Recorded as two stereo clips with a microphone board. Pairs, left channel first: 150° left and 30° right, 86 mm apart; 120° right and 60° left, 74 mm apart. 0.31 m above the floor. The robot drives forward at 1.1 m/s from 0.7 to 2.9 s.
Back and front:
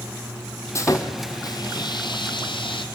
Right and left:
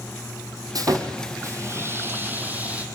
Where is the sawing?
95° left, 3 m; by 2.8 s 130° left, 3.5 m.